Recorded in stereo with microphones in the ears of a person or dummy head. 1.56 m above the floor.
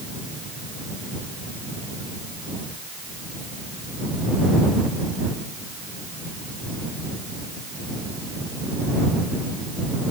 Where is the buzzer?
No buzzer in this recording.